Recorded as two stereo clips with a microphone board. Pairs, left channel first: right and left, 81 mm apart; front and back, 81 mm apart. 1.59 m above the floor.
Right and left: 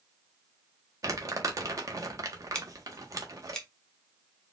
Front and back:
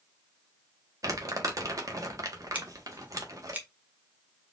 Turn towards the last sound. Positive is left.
turn(degrees=-155)